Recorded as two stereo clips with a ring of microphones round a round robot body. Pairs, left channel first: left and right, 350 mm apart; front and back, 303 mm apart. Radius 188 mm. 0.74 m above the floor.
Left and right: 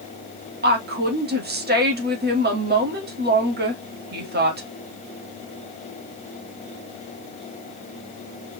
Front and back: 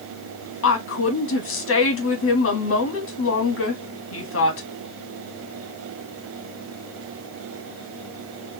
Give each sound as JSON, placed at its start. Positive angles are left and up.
{"t": 0.6, "sound": "a woman speaking", "azimuth_deg": -35, "distance_m": 1.6}